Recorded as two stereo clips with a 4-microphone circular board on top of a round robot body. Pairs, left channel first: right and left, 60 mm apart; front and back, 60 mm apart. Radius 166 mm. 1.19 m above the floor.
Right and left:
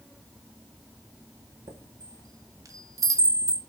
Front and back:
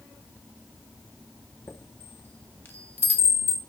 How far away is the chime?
About 2 m.